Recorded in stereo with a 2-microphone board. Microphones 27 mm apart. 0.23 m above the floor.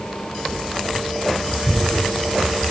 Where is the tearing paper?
55° right (ahead or behind), 5.5 m.